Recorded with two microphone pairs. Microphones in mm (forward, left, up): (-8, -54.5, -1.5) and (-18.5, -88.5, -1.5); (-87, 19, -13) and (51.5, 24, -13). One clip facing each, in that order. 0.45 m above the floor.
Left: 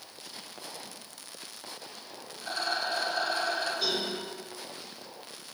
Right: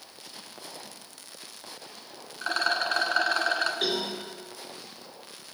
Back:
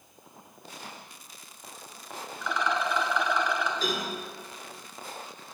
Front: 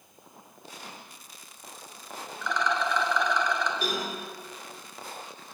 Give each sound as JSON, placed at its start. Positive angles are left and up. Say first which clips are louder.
{"t": 2.4, "sound": "a rattle", "louder": "right 5 dB, front 1 dB", "azimuth_deg": -95, "distance_m": 0.9}
{"t": 3.8, "sound": "a cowbell", "louder": "right 2 dB, even", "azimuth_deg": -75, "distance_m": 2.5}